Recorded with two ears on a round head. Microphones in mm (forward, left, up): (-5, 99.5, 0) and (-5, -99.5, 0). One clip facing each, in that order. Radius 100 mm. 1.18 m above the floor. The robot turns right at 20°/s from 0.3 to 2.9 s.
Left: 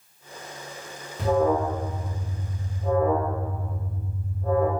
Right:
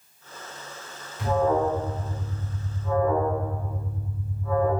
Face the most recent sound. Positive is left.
turn(degrees=135)